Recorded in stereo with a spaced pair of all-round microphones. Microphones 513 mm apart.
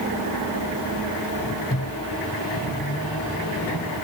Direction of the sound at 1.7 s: 25° left (ahead or behind).